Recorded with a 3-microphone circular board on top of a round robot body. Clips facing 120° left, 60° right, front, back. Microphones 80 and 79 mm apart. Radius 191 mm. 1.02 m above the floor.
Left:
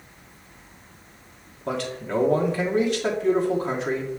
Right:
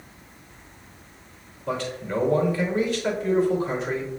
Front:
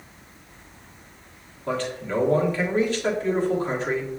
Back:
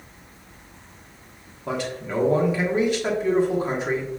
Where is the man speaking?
105° left, 1.3 m.